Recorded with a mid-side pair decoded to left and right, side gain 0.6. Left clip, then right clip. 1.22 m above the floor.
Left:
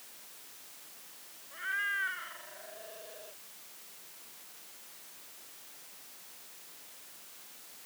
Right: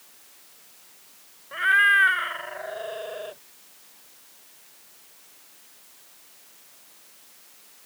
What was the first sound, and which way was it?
A cat meowing, 65° right.